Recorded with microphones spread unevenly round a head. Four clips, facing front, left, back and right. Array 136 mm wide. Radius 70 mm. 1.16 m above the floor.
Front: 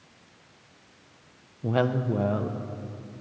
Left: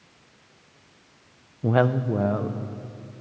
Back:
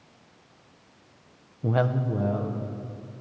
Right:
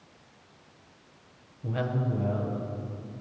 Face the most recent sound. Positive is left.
turn(degrees=50)